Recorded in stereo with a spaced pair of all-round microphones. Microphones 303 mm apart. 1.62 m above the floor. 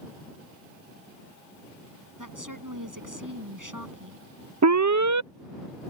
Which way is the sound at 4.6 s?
65° right (ahead or behind).